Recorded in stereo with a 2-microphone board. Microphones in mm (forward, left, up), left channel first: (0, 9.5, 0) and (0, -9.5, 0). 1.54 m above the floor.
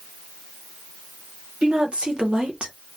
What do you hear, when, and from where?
1.6 s a woman speaking: 65° right (ahead or behind), 1.3 m; by 2.7 s 55° right (ahead or behind), 0.8 m